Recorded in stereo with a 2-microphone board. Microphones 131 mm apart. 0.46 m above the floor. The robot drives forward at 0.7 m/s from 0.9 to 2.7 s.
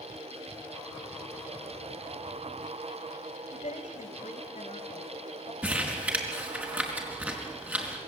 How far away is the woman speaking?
About 2.5 m.